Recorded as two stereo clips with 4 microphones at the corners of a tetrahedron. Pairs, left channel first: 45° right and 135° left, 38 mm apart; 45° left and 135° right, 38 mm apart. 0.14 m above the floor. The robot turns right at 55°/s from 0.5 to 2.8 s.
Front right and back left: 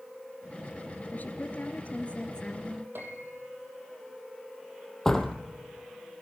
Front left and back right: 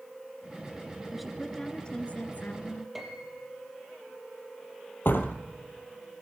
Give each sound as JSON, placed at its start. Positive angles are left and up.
{"t": 1.1, "sound": "a woman speaking", "azimuth_deg": -55, "distance_m": 1.6}
{"t": 3.0, "sound": "a piano", "azimuth_deg": 140, "distance_m": 4.0}
{"t": 5.0, "sound": "a door slam", "azimuth_deg": 30, "distance_m": 2.5}